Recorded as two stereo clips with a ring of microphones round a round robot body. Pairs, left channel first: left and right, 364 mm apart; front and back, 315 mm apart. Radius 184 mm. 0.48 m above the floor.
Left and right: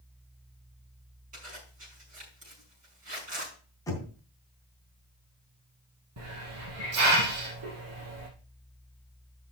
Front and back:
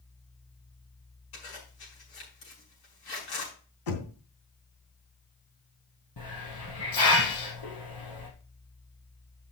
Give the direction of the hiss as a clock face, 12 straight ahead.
1 o'clock.